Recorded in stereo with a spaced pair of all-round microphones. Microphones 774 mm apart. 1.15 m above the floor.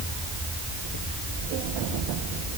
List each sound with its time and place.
Only background noise.